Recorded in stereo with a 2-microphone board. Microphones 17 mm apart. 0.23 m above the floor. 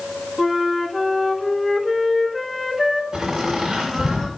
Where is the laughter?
45° right (ahead or behind), 1.6 m.